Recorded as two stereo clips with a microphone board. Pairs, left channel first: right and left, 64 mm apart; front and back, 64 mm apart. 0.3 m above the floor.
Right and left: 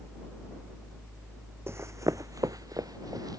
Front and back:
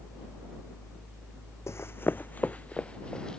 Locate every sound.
1.7 s running footsteps: 40° left; by 3.4 s 80° left